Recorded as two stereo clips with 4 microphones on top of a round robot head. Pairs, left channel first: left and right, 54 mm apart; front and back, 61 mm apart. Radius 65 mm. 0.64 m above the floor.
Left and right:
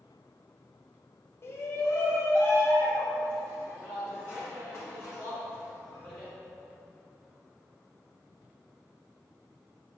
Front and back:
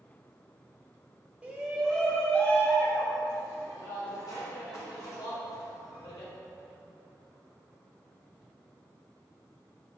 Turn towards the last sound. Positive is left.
turn(degrees=10)